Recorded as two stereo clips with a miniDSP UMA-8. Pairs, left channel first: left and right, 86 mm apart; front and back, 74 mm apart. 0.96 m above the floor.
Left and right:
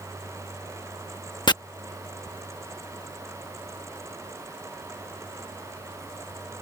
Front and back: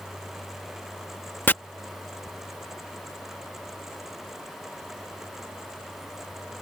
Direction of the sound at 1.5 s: 60° left.